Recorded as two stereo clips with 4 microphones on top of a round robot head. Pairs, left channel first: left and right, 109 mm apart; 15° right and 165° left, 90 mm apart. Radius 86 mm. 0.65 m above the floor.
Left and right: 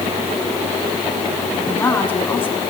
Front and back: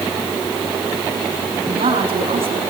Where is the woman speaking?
160° left, 7 m.